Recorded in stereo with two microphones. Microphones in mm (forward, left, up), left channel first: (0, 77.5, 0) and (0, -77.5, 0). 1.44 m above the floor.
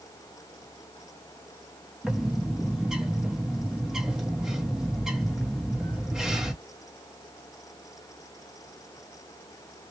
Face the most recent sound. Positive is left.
turn(degrees=-5)  # may be behind; listen again after turning